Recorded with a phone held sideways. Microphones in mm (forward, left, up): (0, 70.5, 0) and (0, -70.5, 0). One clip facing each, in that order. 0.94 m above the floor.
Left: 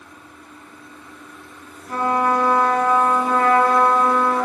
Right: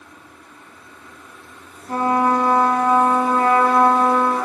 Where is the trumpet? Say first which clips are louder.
Right 2 dB; 35° right (ahead or behind), 3.5 m.